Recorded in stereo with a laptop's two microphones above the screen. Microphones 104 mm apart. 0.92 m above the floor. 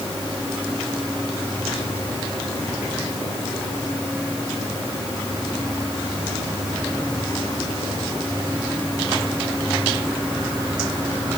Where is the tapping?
No tapping in this recording.